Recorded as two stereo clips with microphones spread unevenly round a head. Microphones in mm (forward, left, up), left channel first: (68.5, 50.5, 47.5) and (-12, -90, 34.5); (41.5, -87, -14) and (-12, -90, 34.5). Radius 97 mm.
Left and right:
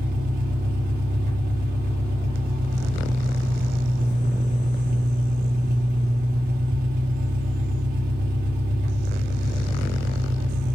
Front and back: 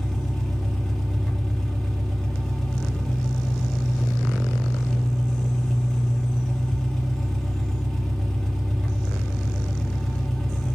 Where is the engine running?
85° right, 2.5 m.